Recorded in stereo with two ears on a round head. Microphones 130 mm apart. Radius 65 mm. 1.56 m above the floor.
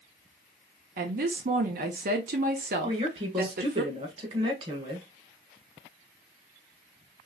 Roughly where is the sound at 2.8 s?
Right.